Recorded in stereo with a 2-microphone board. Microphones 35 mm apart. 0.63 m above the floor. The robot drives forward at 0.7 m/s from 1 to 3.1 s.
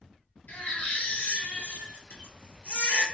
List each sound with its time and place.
0.5 s a baby crying: 60° left (ahead or behind), 1.2 m; by 3.0 s 50° left (ahead or behind), 1.4 m